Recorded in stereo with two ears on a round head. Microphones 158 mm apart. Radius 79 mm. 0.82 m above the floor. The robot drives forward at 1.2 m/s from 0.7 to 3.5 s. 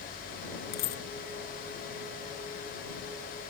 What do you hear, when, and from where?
0.7 s a dropped coin: 55° left (ahead or behind), 1.2 m